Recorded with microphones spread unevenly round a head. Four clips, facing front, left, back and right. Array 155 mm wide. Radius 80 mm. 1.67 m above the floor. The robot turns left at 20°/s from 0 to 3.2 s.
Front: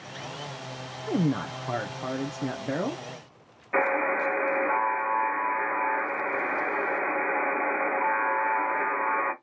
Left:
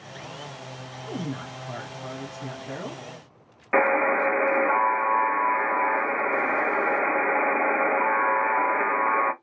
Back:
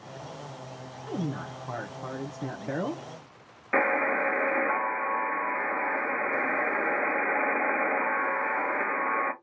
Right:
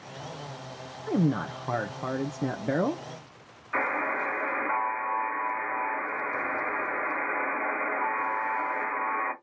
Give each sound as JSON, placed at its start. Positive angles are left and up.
{"t": 1.1, "sound": "a man speaking", "azimuth_deg": -45, "distance_m": 0.7}
{"t": 3.7, "sound": "a buzzer", "azimuth_deg": 115, "distance_m": 1.4}